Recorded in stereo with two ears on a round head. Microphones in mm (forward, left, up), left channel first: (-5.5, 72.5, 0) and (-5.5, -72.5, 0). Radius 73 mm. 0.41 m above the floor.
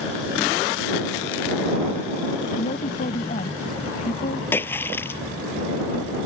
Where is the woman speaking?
45° left (ahead or behind).